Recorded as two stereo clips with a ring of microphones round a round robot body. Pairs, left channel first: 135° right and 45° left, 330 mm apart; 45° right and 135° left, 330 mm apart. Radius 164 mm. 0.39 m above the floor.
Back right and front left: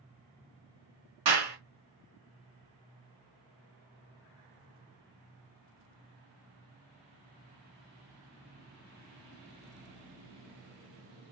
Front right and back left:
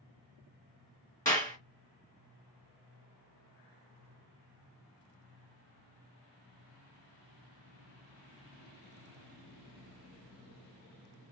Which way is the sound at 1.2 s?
35° left.